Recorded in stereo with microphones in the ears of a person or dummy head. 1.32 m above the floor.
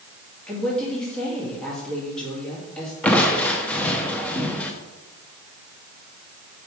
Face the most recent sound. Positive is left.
turn(degrees=5)  # may be behind; listen again after turning